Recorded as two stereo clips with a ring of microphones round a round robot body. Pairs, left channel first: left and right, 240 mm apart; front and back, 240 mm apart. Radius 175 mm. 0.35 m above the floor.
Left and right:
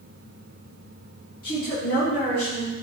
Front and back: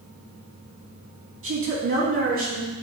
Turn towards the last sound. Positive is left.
turn(degrees=150)